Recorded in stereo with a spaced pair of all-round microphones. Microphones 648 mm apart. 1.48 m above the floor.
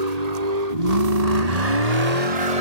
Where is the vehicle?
80° right; by 2.6 s 65° right (ahead or behind).